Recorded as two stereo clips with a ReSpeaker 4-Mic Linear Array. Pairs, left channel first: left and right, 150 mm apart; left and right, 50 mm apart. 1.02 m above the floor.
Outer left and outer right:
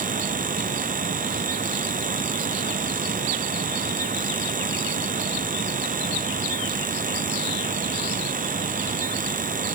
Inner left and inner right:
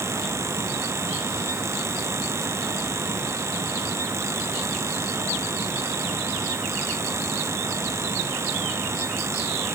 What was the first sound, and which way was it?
Only background noise.